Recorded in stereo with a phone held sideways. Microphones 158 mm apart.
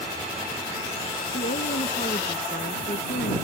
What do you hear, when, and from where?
1.3 s a woman speaking: 70° left (ahead or behind)